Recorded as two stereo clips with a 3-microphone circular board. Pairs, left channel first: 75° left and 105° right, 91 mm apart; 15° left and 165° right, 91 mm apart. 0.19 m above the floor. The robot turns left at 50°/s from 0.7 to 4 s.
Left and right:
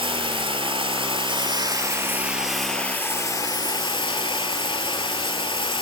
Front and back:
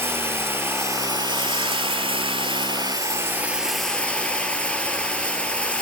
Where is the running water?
100° right, 0.8 m; by 5.8 s 95° left, 0.8 m.